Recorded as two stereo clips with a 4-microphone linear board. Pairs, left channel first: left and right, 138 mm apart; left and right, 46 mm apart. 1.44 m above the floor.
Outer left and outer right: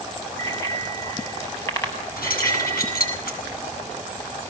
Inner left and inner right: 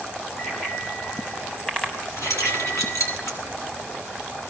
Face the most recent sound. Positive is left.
turn(degrees=85)